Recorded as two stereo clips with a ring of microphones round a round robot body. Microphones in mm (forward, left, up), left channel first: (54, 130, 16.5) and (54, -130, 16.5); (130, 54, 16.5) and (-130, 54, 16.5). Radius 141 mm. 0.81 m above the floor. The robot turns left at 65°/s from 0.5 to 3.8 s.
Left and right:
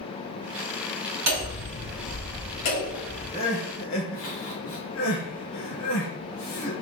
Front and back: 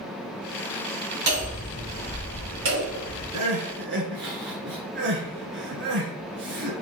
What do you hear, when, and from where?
1.3 s hammering: 125° right, 4 m; by 3.2 s 105° left, 4 m
3.3 s crying: 165° left, 3 m; by 6.7 s 135° left, 3 m